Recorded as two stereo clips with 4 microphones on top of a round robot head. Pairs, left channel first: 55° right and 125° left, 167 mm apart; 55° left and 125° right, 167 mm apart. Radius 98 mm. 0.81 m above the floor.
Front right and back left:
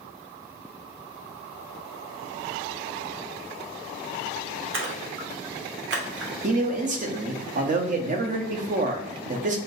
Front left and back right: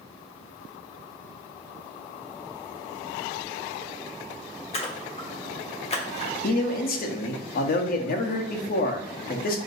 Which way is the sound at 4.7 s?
110° left.